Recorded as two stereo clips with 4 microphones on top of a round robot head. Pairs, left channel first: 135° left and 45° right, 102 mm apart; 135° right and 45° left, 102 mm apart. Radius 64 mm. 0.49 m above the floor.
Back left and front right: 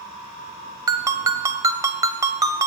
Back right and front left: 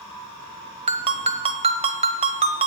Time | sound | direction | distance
0.9 | a ringtone | 15° left | 1.0 m